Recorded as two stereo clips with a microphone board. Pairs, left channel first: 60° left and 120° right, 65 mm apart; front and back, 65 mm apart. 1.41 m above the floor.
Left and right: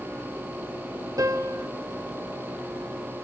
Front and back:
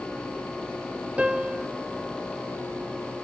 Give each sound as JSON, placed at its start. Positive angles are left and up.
{"t": 1.2, "sound": "a piano", "azimuth_deg": -110, "distance_m": 1.7}